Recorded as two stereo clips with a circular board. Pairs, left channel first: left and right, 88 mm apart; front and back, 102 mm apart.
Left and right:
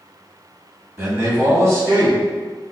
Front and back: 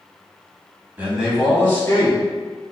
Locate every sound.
1.0 s a man speaking: 120° right, 1.7 m; by 2.2 s 40° right, 2 m